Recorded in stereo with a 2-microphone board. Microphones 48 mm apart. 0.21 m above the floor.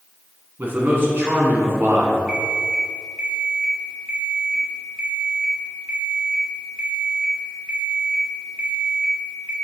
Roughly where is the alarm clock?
Centre.